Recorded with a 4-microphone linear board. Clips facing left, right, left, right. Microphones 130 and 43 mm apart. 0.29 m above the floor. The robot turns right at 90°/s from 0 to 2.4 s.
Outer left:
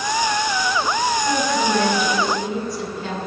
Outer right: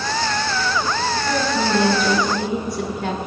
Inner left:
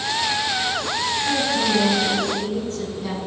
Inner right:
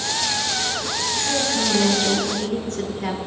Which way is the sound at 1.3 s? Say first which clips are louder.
Even, even; 150° left.